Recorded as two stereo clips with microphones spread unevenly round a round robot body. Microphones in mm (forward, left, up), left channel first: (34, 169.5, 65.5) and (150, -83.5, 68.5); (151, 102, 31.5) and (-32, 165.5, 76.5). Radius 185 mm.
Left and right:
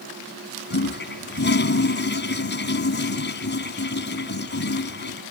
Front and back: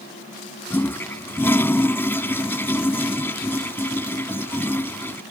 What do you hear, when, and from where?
0.7 s a toilet flushing: 65° left